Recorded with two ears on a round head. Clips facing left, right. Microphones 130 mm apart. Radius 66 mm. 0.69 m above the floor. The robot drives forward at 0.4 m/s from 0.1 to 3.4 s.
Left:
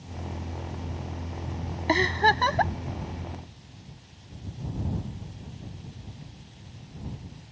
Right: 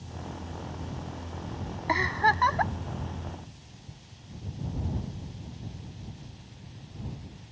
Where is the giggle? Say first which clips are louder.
Left 3 dB; 30° left (ahead or behind); by 2.7 s 35° left (ahead or behind).